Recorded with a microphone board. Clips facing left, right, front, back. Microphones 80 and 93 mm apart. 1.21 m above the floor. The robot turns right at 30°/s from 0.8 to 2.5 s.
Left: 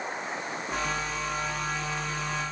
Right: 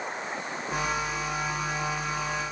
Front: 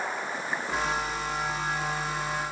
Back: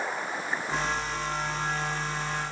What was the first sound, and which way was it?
Only background noise.